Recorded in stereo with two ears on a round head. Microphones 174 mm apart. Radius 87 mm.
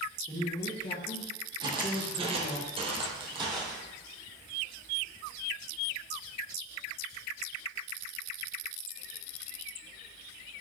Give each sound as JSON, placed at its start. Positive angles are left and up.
{"t": 0.3, "sound": "a man speaking", "side_deg": 10, "distance_m": 1.3}
{"t": 1.6, "sound": "footsteps", "side_deg": -25, "distance_m": 2.5}